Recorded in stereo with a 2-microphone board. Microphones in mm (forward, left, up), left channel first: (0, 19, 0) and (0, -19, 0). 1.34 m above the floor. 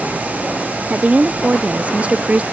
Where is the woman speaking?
35° right (ahead or behind).